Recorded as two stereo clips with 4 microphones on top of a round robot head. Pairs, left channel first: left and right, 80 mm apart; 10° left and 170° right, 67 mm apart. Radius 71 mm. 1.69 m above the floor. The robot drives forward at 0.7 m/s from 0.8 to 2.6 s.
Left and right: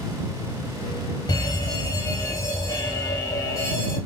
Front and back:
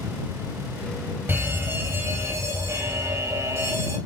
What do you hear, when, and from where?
1.3 s a fire alarm: 125° left, 2.5 m; by 4.0 s 140° left, 3.5 m